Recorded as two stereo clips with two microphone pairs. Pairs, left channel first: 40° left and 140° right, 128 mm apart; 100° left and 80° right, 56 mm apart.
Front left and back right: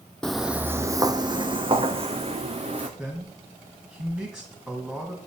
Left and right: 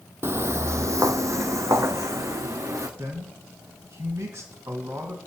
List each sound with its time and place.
0.2 s footsteps: 45° right, 0.6 m; by 2.9 s 110° right, 1.8 m
3.0 s a man speaking: 55° right, 2 m